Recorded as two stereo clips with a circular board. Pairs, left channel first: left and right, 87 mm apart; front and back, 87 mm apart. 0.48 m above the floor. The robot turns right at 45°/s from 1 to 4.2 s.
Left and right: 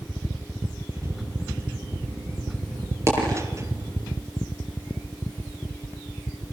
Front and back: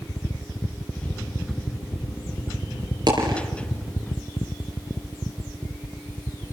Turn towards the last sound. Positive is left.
turn(degrees=-95)